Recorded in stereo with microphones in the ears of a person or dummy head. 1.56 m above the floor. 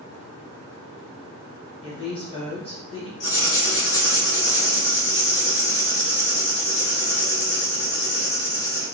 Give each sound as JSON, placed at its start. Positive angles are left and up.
{"t": 1.8, "sound": "a woman speaking", "side_deg": 25, "distance_m": 1.2}
{"t": 3.2, "sound": "writing", "side_deg": 55, "distance_m": 1.7}